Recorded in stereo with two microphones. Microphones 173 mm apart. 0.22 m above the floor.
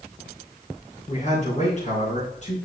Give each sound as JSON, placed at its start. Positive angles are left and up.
{"t": 1.1, "sound": "a man speaking", "side_deg": 45, "distance_m": 3.5}